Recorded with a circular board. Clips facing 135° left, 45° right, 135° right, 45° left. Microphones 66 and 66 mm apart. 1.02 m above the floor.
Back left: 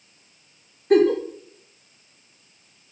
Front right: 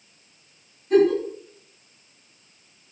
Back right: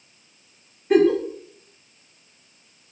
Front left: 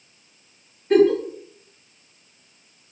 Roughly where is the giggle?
Behind left.